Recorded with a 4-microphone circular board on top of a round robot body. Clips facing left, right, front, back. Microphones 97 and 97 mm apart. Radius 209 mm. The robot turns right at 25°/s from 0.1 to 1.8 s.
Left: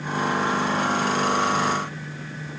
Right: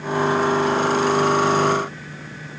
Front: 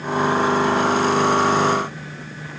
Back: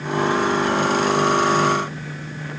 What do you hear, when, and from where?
Only background noise.